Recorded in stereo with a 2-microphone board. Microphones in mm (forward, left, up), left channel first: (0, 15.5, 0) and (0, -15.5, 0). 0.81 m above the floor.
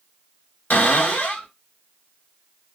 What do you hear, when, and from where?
0.7 s a cupboard door: 90° left, 2.0 m